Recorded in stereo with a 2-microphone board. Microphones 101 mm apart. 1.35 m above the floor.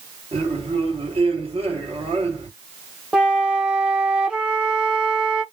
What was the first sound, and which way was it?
A man speaking, 75° right (ahead or behind).